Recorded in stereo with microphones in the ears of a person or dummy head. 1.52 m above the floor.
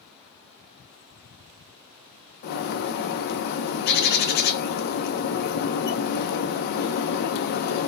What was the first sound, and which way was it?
A bird, 55° left (ahead or behind).